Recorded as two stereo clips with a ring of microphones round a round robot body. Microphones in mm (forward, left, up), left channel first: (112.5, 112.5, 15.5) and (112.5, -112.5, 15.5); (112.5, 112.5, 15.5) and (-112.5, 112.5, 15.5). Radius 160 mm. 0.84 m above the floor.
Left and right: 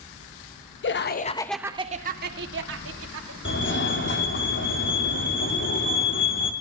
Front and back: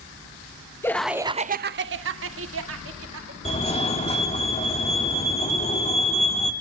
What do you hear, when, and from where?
0.8 s laughter: 75° left, 1.1 m; by 3.4 s 135° right, 3 m
3.5 s a fire alarm: 60° left, 3.5 m